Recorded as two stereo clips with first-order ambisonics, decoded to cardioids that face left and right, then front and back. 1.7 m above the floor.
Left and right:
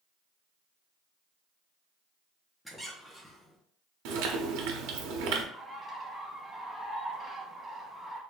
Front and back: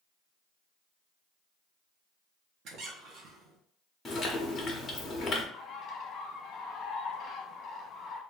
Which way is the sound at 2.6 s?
175° left.